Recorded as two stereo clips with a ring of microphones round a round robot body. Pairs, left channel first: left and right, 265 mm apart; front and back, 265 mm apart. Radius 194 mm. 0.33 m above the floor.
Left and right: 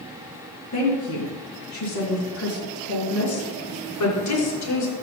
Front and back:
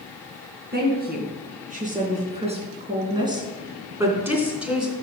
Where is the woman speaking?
130° left, 3.5 m; by 4.9 s 90° left, 3.5 m.